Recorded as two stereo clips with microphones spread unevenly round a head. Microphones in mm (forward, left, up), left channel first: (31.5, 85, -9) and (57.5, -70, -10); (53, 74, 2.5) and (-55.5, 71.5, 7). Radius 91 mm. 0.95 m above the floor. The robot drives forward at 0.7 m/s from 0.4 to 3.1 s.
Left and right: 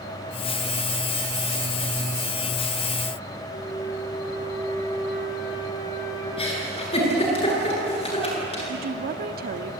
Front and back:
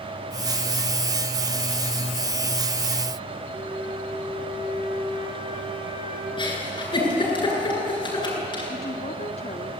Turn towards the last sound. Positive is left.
turn(degrees=-55)